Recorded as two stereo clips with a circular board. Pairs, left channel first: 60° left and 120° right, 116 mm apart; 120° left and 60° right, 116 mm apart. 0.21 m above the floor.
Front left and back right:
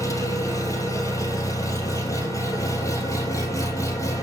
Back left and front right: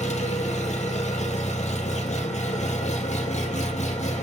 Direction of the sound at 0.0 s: 120° left.